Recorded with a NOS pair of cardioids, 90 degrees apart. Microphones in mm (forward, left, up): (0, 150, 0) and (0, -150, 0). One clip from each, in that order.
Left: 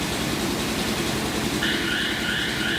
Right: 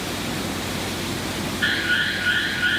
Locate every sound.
0.0 s an engine running: 55° left, 2.5 m
1.6 s an alarm: 25° right, 5 m